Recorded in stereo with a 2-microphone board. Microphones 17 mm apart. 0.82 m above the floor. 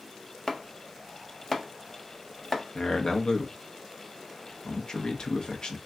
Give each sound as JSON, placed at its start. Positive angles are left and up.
{"t": 0.5, "sound": "chopping", "side_deg": 30, "distance_m": 0.6}
{"t": 2.8, "sound": "a man speaking", "side_deg": 50, "distance_m": 0.8}